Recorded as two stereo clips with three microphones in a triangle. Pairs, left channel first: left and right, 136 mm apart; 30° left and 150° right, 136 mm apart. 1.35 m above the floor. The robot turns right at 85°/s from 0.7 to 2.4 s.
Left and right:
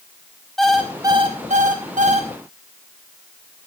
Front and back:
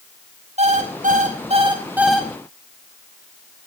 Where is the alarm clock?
175° left, 5 m; by 2.3 s 50° right, 5 m.